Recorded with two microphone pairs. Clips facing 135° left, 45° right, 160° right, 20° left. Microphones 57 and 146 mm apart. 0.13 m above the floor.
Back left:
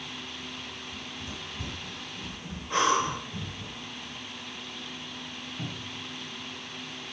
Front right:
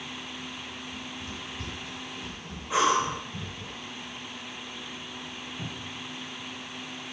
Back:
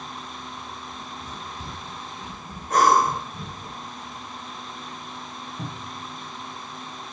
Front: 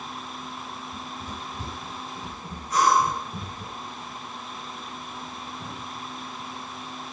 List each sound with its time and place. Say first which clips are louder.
0.9 s running footsteps: front right 1 dB, front 1 dB; 65° left, 8.5 m
2.7 s breathing: front right 1 dB, back 3 dB; 125° right, 3 m
5.6 s a cupboard door: back left 1 dB, back 1 dB; 145° right, 6.5 m